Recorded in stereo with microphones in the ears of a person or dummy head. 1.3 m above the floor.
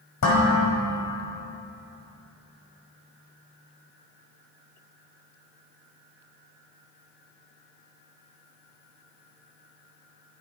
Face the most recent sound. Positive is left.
turn(degrees=80)